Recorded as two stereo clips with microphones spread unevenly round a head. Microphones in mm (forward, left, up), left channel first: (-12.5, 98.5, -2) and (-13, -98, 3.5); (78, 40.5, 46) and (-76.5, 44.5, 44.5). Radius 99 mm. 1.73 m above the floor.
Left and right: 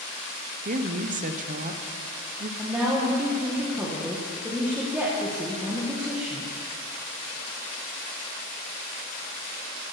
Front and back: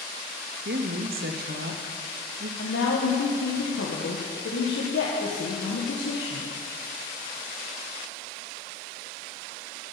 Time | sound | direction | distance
0.7 | a woman speaking | 140° right | 1.1 m
2.6 | a woman speaking | 10° right | 1.8 m